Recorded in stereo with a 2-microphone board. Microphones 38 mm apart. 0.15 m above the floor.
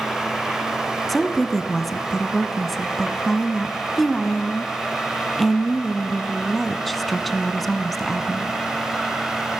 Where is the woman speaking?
Centre (ahead or behind), 1.3 m.